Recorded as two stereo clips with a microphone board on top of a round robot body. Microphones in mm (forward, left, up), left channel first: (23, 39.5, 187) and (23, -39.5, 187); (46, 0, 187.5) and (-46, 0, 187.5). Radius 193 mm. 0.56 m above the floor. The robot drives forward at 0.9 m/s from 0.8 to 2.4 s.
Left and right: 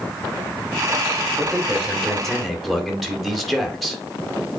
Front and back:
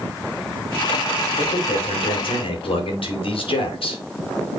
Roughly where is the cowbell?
I don't hear a cowbell.